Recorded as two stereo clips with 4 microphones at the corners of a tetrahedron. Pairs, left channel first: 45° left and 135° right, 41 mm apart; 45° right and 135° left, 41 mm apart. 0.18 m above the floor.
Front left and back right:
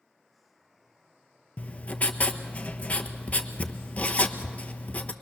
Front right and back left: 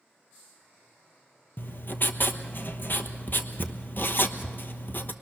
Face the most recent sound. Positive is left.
turn(degrees=-10)